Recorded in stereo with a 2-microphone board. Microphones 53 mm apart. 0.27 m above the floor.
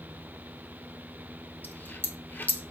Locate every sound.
1.6 s a dropped coin: 35° left (ahead or behind), 0.8 m